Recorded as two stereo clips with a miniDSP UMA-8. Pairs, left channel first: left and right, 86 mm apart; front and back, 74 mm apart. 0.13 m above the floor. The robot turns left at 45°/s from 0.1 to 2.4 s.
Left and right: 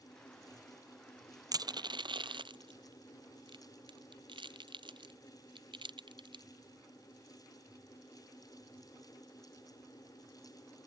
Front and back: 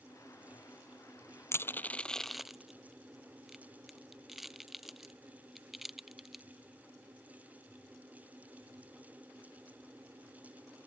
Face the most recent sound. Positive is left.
turn(degrees=-95)